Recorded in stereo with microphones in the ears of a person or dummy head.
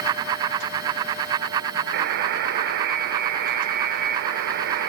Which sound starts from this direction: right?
A buzzer, at 1.9 s.